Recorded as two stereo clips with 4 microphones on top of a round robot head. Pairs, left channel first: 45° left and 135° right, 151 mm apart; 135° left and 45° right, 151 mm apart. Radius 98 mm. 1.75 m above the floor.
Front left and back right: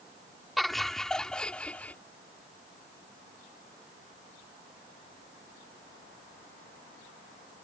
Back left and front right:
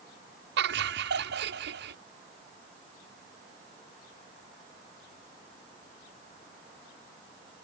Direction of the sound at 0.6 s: 45° right.